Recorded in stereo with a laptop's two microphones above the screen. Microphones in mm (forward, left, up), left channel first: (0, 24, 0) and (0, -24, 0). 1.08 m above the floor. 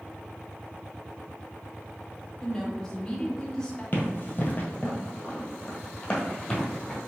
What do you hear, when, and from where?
2.4 s a woman speaking: 15° left (ahead or behind), 1.0 m
3.9 s running footsteps: 40° left (ahead or behind), 1.4 m; by 7.0 s 10° left (ahead or behind), 1.7 m